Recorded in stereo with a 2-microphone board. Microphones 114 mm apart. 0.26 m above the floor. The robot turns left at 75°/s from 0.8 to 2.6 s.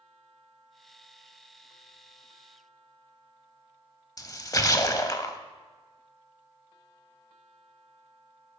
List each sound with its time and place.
4.2 s a splash: 30° left (ahead or behind), 0.6 m